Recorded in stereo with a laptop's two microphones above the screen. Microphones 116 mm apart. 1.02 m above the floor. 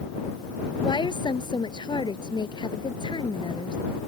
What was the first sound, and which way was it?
A woman speaking, 40° left (ahead or behind).